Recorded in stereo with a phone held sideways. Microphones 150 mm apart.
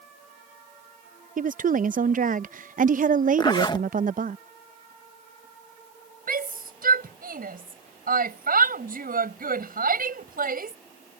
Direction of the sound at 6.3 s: 70° right (ahead or behind).